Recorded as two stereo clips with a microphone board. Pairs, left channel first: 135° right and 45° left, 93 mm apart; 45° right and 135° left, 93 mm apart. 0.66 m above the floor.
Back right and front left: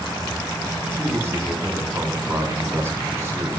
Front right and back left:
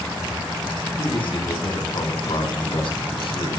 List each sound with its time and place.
1.0 s a man speaking: 20° right, 5.5 m